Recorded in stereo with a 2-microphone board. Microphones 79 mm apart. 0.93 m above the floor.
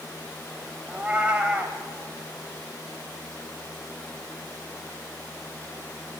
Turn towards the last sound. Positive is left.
turn(degrees=-20)  # may be behind; listen again after turning